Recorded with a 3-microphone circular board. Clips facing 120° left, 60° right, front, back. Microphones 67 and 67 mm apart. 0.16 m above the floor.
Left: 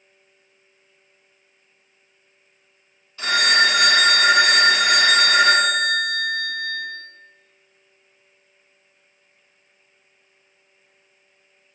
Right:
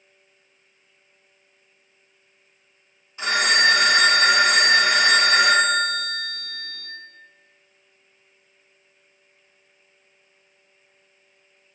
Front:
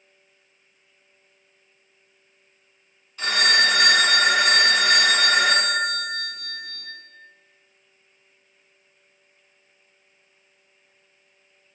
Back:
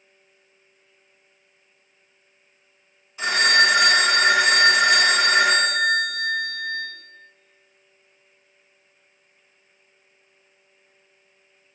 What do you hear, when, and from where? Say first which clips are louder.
3.2 s a phone ringing: left 1 dB, back 2 dB; 115° right, 1.1 m